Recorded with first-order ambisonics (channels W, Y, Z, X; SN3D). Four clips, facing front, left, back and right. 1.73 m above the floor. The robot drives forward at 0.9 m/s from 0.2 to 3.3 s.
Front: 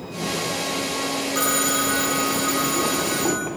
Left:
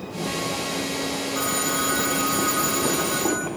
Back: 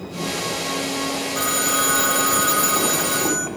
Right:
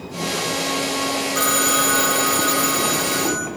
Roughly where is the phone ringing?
Ahead right.